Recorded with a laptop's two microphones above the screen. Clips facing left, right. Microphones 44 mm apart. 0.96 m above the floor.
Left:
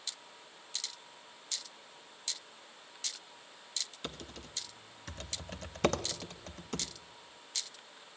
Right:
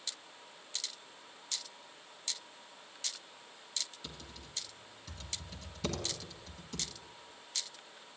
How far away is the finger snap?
I don't hear a finger snap.